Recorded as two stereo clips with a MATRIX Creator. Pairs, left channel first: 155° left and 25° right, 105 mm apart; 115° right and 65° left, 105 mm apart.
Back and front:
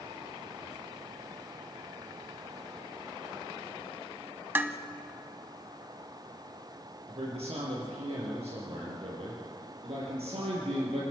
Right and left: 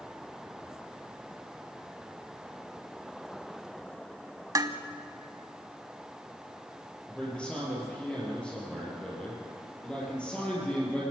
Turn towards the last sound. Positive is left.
turn(degrees=-35)